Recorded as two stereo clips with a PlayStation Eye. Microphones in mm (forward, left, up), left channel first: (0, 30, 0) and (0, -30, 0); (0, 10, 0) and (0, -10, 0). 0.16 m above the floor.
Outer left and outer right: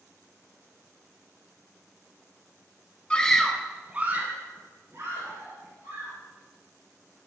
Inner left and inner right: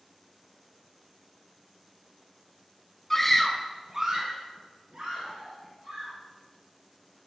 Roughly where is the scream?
Centre.